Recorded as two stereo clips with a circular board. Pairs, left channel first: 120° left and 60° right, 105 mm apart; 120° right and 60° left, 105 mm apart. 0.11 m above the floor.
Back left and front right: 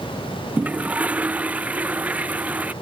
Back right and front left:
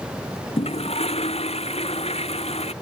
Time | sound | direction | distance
0.6 | a toilet flushing | 135° right | ?